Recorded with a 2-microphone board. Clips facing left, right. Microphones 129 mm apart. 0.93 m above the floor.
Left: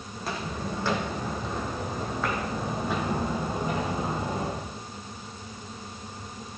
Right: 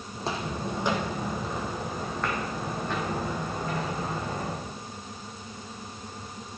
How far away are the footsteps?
About 2 m.